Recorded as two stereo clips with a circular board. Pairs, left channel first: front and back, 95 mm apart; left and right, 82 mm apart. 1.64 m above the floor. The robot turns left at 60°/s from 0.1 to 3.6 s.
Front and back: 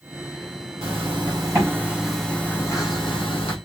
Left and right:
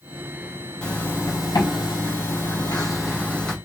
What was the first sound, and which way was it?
A zipper, 170° left.